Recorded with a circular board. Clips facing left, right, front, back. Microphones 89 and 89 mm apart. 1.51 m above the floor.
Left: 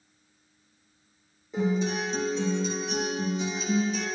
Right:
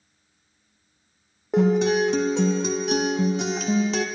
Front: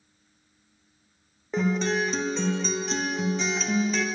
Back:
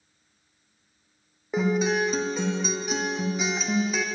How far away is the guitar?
About 0.7 m.